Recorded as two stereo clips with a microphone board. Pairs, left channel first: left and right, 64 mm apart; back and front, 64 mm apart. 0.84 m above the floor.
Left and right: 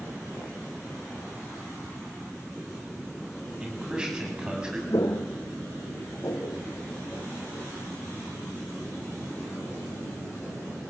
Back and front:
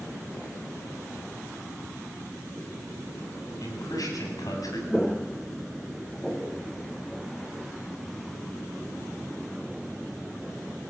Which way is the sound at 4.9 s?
100° left.